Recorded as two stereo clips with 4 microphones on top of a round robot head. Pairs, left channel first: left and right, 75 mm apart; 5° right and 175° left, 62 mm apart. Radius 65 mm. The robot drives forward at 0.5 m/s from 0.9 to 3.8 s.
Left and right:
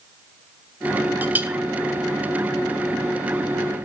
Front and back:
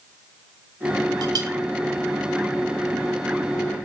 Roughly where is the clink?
Behind right.